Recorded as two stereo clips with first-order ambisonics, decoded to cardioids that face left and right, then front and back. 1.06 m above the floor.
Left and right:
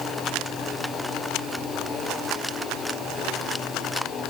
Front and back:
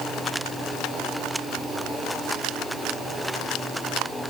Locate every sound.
Only background noise.